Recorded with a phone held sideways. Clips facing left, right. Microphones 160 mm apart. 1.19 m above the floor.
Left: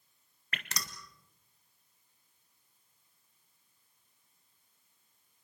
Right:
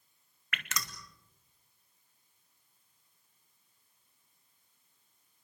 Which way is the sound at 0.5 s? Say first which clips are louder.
Right 2 dB; 35° left (ahead or behind).